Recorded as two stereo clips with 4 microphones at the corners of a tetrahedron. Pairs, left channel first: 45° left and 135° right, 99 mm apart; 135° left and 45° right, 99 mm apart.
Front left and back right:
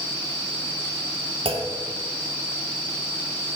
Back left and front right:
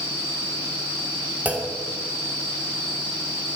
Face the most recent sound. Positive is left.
turn(degrees=-120)